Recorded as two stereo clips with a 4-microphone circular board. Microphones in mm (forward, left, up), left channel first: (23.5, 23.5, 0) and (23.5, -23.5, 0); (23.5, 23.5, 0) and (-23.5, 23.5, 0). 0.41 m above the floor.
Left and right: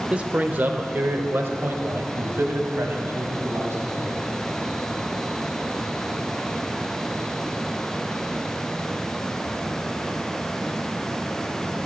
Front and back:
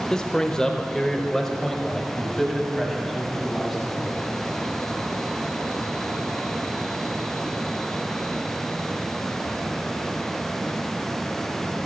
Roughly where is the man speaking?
Ahead right.